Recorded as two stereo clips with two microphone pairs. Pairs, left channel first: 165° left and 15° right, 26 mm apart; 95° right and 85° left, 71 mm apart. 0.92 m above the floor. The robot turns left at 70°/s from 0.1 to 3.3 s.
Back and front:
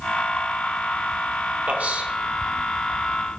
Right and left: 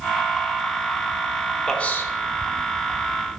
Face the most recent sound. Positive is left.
turn(degrees=-130)